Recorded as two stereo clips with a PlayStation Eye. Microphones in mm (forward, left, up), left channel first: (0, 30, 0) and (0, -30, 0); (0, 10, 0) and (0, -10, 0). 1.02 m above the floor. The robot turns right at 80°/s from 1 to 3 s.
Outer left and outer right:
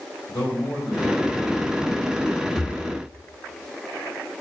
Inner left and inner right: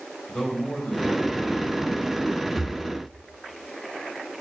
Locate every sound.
0.3 s a man speaking: 105° left, 4.5 m; by 2.5 s 140° right, 4.5 m
2.6 s breathing: 10° right (ahead or behind), 0.8 m; by 2.9 s 30° right (ahead or behind), 0.8 m